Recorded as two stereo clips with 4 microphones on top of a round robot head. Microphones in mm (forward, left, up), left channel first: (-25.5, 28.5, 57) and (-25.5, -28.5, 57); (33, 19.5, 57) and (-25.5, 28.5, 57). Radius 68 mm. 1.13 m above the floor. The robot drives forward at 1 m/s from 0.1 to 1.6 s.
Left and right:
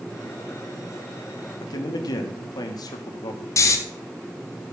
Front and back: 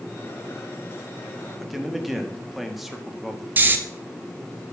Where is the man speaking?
85° left, 2 m.